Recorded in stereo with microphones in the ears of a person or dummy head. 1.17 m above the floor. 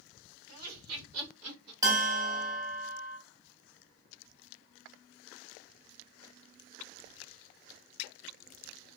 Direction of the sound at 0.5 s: 50° right (ahead or behind).